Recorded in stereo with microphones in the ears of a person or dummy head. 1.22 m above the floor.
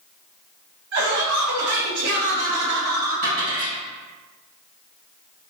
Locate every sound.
0.9 s laughter: 55° right (ahead or behind), 1.1 m; by 3.5 s 45° right (ahead or behind), 1.4 m
3.2 s a dropped coin: 40° right (ahead or behind), 1.5 m